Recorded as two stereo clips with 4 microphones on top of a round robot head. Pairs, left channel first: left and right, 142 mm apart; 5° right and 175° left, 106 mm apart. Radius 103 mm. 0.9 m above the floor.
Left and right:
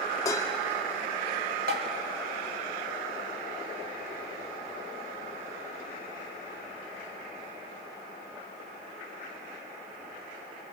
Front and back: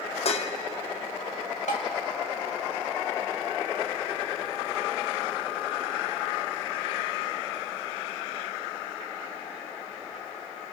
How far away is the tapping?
About 1.0 m.